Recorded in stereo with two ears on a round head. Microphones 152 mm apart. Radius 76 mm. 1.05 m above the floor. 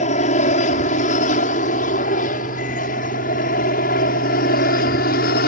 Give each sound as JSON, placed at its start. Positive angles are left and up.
{"t": 0.0, "sound": "an aircraft", "side_deg": 40}